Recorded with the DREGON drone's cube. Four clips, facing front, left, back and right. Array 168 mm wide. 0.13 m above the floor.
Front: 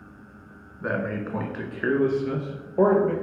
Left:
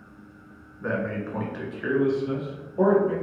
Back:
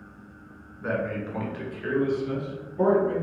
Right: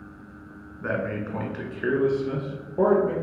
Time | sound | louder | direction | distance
0.8 | a man speaking | even, front 1 dB | 25° right | 1.2 m